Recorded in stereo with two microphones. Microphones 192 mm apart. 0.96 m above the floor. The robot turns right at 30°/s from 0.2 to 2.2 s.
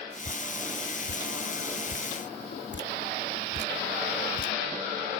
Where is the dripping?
40° left (ahead or behind); by 4.5 s 75° left (ahead or behind).